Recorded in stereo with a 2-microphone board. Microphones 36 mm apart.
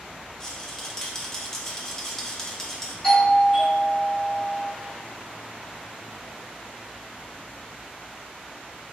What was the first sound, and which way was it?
A rattle, 15° left (ahead or behind).